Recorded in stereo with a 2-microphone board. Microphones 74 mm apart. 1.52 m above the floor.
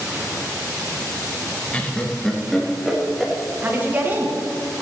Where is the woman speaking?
25° right (ahead or behind), 1.6 m.